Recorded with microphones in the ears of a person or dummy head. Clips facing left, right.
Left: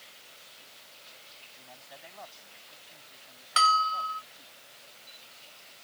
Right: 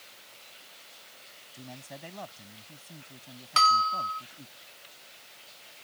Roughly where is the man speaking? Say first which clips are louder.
Right 8 dB; right.